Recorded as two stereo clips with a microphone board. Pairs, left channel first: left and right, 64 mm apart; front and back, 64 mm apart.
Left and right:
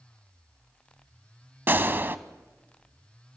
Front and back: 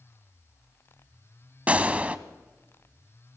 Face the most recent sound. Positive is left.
turn(degrees=-125)